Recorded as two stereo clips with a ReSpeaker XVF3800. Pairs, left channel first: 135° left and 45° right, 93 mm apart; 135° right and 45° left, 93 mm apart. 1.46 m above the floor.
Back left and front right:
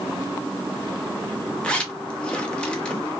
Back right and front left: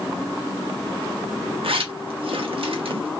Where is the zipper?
55° left, 0.8 m.